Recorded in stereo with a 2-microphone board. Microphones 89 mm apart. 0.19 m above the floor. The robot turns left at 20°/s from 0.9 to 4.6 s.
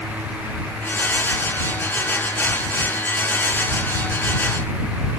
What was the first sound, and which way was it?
Only background noise.